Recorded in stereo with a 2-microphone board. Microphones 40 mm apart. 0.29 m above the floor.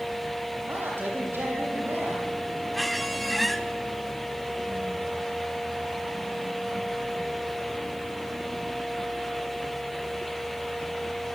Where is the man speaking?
60° right (ahead or behind), 9.5 m.